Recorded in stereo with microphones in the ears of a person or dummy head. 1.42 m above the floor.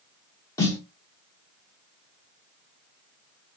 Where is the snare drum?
20° left (ahead or behind), 0.6 m.